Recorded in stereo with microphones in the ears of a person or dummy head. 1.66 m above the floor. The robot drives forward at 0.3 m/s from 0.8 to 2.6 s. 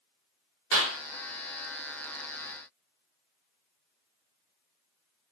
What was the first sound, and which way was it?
A clap, 70° right (ahead or behind).